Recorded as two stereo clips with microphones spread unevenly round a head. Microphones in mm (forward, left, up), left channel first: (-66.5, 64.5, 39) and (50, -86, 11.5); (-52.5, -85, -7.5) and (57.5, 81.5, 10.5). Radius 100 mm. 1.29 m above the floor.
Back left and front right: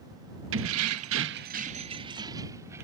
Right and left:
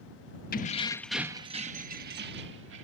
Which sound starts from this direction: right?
Keys jangling, at 0.5 s.